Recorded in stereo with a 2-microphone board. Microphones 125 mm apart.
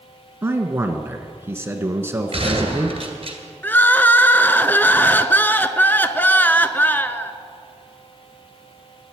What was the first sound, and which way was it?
A man speaking, 20° right (ahead or behind).